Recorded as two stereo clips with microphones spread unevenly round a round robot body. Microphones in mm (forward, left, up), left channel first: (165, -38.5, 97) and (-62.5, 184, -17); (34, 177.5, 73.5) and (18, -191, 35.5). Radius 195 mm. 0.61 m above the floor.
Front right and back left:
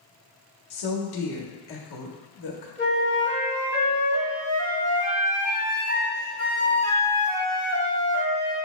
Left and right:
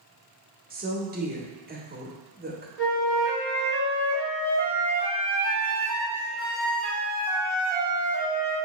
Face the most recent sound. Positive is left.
turn(degrees=180)